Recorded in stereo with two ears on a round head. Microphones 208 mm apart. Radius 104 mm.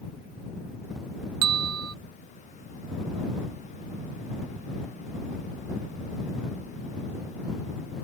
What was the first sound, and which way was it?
A bell, 75° right (ahead or behind).